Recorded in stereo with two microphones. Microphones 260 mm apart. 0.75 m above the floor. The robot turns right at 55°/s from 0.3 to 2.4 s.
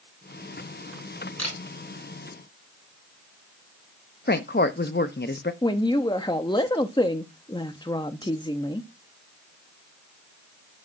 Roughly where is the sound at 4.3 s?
Left.